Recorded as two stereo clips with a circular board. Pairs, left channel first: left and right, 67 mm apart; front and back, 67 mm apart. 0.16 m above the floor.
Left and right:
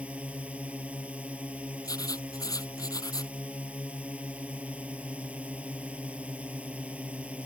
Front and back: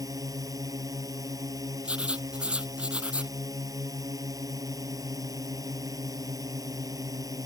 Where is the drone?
160° right.